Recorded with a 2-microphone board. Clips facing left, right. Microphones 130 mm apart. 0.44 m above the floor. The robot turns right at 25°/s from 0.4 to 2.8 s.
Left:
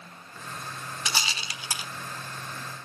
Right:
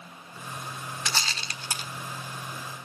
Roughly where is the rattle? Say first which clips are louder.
Left 1 dB; centre.